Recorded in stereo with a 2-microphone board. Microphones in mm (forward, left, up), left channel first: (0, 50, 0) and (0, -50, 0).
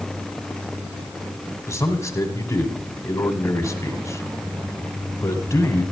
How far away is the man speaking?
About 1.7 m.